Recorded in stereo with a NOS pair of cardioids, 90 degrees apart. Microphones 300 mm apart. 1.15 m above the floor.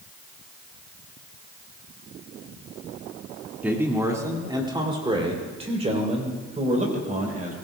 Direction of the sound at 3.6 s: 5° right.